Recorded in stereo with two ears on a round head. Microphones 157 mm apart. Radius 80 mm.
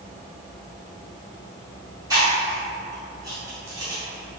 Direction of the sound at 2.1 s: 20° right (ahead or behind).